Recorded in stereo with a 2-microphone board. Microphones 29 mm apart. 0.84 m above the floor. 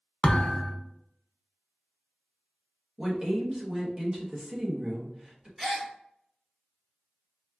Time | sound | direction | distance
0.2 | a thud | 40° left (ahead or behind) | 0.6 m
3.0 | a woman speaking | 30° right (ahead or behind) | 1.1 m
5.6 | a gasp | 10° right (ahead or behind) | 1.6 m